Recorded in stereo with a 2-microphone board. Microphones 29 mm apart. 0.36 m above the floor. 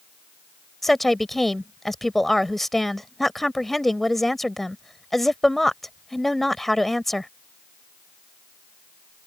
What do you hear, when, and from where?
0.8 s a woman speaking: 10° left (ahead or behind)